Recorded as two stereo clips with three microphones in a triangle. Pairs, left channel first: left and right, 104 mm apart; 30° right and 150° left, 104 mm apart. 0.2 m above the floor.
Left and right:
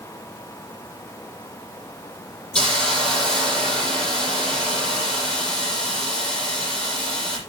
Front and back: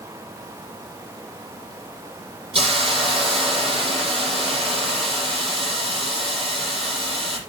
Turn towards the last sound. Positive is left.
turn(degrees=175)